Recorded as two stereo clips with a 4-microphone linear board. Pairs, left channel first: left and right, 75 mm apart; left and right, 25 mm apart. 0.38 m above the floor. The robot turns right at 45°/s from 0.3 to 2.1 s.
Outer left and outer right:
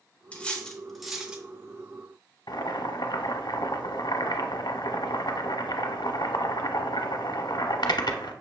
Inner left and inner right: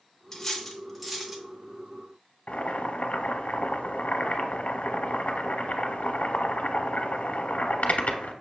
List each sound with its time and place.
0.3 s cutlery clinking: 15° left (ahead or behind), 0.5 m; by 1.4 s 15° right (ahead or behind), 0.5 m
2.5 s boiling: 80° left, 0.5 m